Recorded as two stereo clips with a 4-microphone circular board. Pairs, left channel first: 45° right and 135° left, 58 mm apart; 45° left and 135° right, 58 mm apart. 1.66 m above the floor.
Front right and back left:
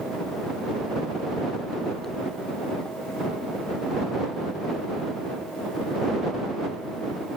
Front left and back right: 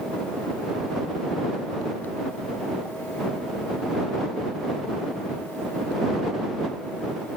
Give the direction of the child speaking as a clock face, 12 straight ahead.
No child speaking in this recording.